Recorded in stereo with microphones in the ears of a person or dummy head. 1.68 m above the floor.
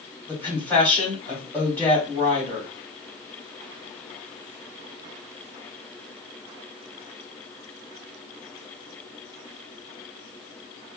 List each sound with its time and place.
0.3 s a woman speaking: 15° left (ahead or behind), 2 m